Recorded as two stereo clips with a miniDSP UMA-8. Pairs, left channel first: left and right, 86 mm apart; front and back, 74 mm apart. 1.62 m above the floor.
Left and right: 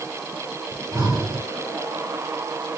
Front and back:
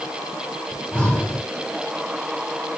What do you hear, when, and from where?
0.7 s breathing: 70° right, 3 m